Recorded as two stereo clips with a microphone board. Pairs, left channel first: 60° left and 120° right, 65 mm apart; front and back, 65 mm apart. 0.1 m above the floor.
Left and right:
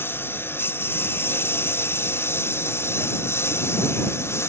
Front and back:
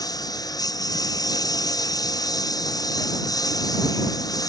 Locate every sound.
0.0 s a lawn mower: 5° left; by 4.5 s 15° left